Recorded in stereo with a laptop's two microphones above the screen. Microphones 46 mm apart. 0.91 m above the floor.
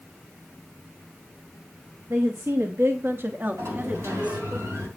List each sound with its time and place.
2.1 s a woman speaking: 70° right (ahead or behind), 1.1 m; by 4.6 s 25° right (ahead or behind), 1.9 m
3.6 s a sliding door: 85° right, 3.5 m